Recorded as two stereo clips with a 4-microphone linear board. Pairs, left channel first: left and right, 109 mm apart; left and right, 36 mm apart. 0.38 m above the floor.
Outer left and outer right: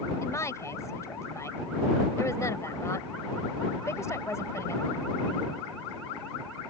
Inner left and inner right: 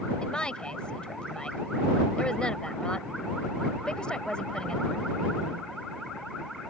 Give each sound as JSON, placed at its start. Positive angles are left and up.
{"t": 0.2, "sound": "a woman speaking", "side_deg": 30}